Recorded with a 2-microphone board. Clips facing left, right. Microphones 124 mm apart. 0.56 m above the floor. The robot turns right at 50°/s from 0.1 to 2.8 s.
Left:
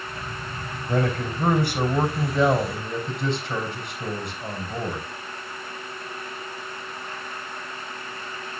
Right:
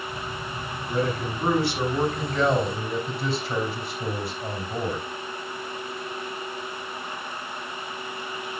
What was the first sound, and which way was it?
A man speaking, 85° left.